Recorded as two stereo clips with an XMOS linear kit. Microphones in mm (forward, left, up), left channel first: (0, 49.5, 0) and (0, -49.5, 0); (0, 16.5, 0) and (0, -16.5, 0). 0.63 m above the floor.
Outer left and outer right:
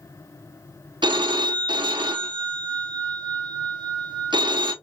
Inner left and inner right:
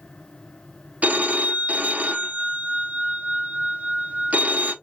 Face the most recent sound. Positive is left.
turn(degrees=-50)  # may be behind; listen again after turning